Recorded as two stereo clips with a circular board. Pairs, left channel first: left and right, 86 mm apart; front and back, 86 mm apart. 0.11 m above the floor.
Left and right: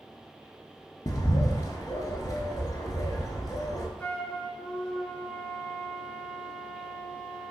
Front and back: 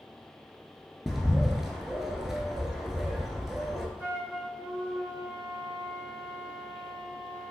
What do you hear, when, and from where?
1.1 s a bird: 95° left, 0.5 m
4.0 s a flute: 140° left, 0.9 m